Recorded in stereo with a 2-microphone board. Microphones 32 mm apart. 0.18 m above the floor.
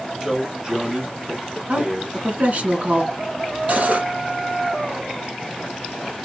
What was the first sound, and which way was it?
A man speaking, 25° right (ahead or behind).